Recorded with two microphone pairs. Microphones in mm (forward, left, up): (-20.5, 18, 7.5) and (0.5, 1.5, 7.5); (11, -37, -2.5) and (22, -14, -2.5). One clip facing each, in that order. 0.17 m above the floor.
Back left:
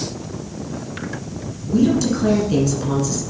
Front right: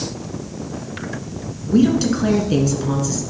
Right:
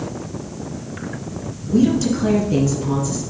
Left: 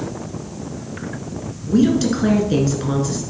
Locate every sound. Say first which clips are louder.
1.7 s a woman speaking: front right 1 dB, left 1 dB; 10° left, 2.5 m; by 3.2 s 55° left, 2.5 m